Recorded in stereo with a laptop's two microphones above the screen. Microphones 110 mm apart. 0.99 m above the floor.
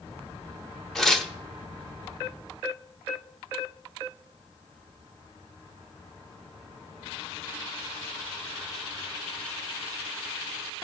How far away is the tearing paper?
About 0.7 m.